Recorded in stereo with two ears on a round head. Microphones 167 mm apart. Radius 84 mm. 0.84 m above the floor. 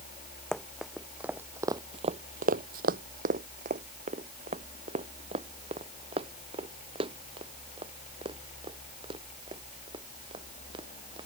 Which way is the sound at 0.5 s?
Centre (ahead or behind).